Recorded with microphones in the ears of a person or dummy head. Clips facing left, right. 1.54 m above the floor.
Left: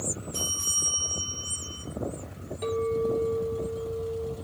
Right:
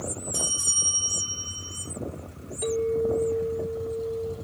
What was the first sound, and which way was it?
A bell, 15° right (ahead or behind).